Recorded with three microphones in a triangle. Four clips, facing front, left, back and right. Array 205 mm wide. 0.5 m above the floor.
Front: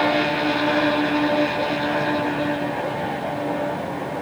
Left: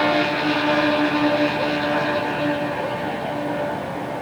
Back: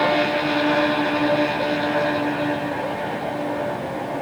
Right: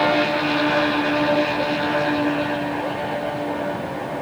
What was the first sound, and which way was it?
Only background noise.